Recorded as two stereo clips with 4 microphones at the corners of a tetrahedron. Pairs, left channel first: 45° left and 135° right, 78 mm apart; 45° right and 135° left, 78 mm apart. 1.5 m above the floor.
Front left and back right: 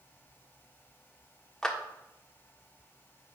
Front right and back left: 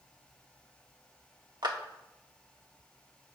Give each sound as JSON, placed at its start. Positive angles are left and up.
{"t": 1.6, "sound": "a clap", "azimuth_deg": 125, "distance_m": 1.3}